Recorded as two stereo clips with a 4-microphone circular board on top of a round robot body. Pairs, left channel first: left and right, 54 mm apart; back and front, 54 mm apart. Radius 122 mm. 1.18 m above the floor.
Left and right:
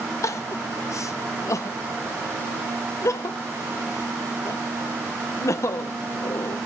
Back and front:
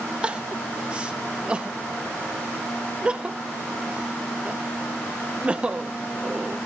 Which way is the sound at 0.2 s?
70° left.